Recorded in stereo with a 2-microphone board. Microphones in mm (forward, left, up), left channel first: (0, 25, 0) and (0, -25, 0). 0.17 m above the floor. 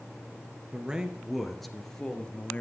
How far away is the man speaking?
About 2.5 m.